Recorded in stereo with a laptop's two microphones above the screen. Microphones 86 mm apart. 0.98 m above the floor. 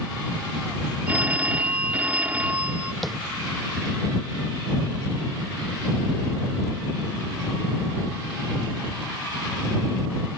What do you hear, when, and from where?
1.1 s a phone ringing: 20° right (ahead or behind)
3.0 s tapping: centre (ahead or behind)